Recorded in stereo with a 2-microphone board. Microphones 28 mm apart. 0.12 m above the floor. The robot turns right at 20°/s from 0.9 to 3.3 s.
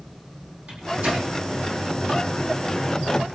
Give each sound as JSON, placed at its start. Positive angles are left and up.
{"t": 0.7, "sound": "a microwave", "side_deg": -55, "distance_m": 5.0}